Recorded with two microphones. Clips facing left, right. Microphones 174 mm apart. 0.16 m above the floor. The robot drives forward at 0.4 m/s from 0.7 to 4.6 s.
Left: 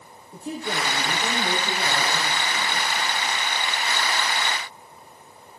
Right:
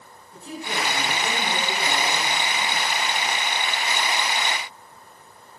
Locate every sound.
0.3 s a woman speaking: 55° left (ahead or behind), 5 m; by 3.4 s 45° left (ahead or behind), 5.5 m